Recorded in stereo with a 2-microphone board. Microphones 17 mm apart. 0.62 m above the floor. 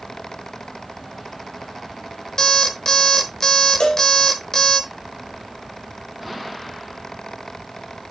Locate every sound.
2.4 s an alarm clock: 35° left (ahead or behind), 1.2 m
3.8 s a cowbell: 60° left (ahead or behind), 1.6 m